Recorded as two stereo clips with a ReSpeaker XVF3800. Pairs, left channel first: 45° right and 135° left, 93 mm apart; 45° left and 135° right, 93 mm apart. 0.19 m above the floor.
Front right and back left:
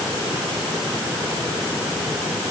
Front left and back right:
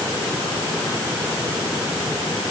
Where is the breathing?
I don't hear breathing.